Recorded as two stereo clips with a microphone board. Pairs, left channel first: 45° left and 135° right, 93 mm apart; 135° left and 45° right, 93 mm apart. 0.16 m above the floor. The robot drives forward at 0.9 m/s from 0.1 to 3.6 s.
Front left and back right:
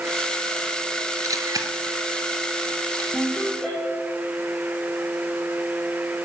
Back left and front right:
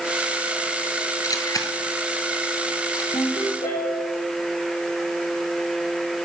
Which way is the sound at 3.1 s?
135° left.